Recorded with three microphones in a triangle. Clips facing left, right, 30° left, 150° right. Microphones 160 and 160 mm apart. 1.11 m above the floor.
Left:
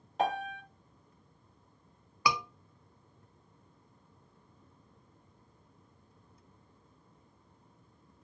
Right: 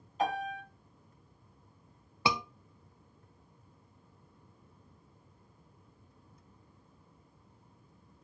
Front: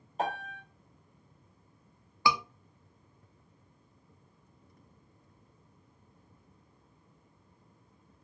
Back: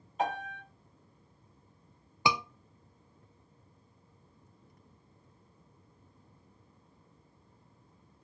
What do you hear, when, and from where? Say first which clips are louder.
0.2 s a piano: left 1 dB, back 1 dB; 85° left, 1.6 m
2.2 s a scream: even, front 1 dB; 110° right, 0.6 m